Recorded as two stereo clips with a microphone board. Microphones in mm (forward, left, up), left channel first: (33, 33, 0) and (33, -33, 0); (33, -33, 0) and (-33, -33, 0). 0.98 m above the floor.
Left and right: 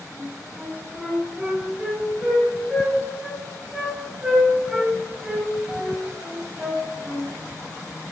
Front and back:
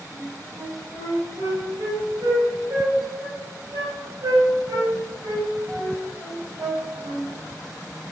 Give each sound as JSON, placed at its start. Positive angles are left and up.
{"t": 0.1, "sound": "a flute", "azimuth_deg": -160, "distance_m": 2.5}